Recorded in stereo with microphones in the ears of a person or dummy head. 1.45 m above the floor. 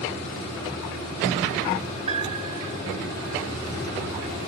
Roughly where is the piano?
Right.